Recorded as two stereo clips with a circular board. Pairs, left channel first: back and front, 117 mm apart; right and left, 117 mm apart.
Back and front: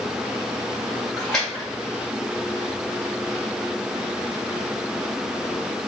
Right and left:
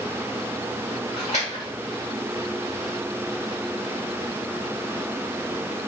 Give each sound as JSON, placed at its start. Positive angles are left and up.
{"t": 1.2, "sound": "a splash", "azimuth_deg": -95, "distance_m": 1.7}